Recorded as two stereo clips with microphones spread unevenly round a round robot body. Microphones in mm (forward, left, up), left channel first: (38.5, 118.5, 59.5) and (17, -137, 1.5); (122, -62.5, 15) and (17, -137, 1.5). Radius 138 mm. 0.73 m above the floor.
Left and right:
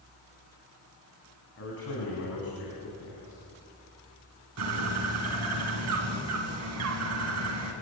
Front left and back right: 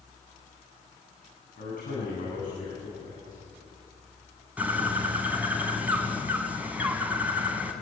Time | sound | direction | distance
1.6 | a man speaking | 45° left | 8 m
4.6 | a bird | 65° right | 4.5 m